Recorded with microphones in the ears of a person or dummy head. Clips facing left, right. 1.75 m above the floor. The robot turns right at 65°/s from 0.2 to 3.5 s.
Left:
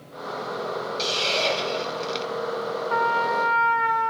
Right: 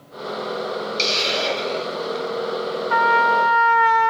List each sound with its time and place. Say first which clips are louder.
1.0 s a hiss: right 1 dB; 30° right, 1.1 m; by 2.3 s 50° left, 1.1 m
2.9 s a trumpet: right 6 dB; 110° right, 1.4 m; by 4.1 s 70° right, 1.4 m